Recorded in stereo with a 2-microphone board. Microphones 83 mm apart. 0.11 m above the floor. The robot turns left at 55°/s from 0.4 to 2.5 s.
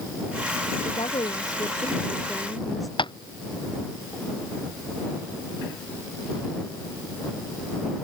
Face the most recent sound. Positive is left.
turn(degrees=85)